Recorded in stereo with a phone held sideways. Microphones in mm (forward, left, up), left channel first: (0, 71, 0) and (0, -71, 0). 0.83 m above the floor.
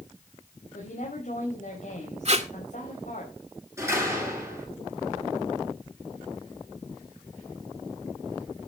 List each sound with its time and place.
0.7 s a woman speaking: 65° left (ahead or behind), 5 m
2.2 s tape being pulled: 50° right (ahead or behind), 1.9 m
3.8 s a door slam: 20° right (ahead or behind), 8.5 m